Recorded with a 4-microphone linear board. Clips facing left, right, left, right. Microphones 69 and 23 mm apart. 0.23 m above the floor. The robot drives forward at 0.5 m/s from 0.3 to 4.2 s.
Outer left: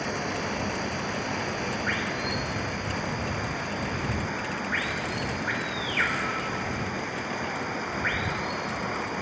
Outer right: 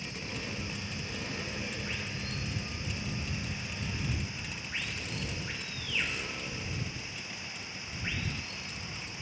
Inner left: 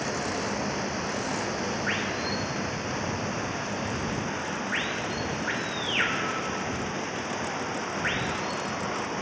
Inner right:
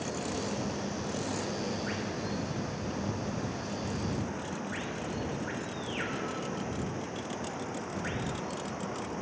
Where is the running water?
70° left (ahead or behind); by 9.2 s 55° left (ahead or behind).